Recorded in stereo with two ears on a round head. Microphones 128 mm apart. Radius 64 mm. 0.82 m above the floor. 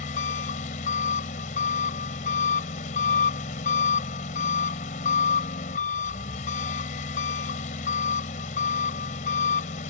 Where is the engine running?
55° left (ahead or behind).